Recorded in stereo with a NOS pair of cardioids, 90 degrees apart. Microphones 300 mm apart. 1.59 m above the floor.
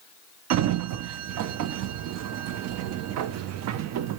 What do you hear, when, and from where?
0.5 s a sliding door: 65° right, 0.5 m